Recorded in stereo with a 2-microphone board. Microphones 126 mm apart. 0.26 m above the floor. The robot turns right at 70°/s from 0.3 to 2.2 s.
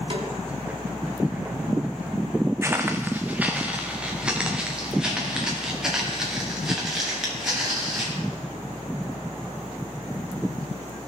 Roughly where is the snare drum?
Right.